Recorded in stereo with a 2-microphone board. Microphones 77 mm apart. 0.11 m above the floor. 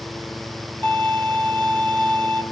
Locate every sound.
0.8 s a violin: 20° left (ahead or behind), 1.3 m